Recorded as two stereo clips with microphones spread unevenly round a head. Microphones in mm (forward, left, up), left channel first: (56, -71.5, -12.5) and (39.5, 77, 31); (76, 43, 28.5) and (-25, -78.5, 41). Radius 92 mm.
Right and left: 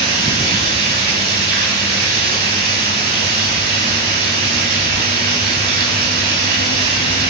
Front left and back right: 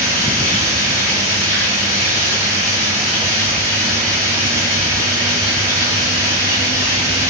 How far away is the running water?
About 7 m.